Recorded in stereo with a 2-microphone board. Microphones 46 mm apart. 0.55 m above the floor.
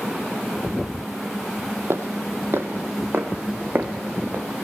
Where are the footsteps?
60° right (ahead or behind), 1.1 m; by 4.6 s 50° right (ahead or behind), 2.5 m.